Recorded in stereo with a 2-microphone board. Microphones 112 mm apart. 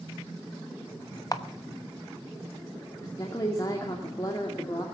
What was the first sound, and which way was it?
A camera shutter, 35° left (ahead or behind).